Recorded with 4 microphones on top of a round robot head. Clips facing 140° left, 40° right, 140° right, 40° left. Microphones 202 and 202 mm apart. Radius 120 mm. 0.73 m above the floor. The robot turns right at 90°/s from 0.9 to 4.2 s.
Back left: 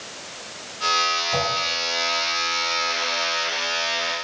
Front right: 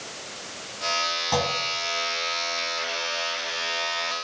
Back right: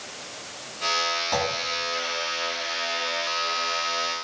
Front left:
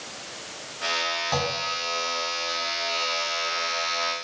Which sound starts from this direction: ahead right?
A clunk, at 1.3 s.